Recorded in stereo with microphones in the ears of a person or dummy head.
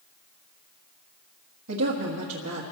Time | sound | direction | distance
1.7 | a woman speaking | 80° right | 1.7 m